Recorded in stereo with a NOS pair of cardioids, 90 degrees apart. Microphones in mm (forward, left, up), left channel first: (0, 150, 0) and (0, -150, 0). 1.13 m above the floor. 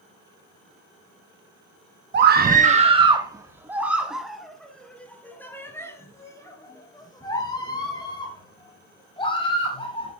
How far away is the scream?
About 0.9 m.